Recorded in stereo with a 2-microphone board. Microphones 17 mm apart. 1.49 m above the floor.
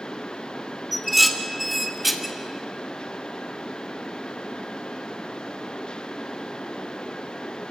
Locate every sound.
0.9 s dishes clattering: 5° right (ahead or behind), 1.5 m